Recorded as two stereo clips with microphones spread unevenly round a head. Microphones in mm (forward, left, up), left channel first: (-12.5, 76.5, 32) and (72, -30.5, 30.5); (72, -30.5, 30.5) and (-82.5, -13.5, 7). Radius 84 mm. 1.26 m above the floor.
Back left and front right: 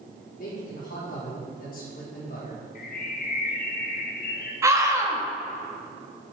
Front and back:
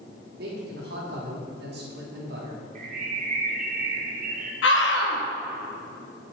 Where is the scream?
15° left, 1.7 m.